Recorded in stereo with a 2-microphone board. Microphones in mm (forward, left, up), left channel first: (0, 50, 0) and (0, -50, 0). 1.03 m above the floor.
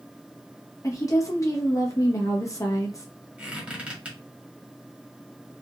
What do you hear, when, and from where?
0.8 s a woman speaking: 35° left (ahead or behind), 1.2 m
3.4 s a squeak: 15° right (ahead or behind), 1.7 m